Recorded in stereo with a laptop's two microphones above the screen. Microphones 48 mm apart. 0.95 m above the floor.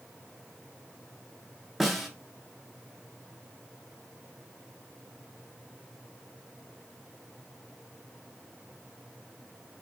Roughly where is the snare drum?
Centre.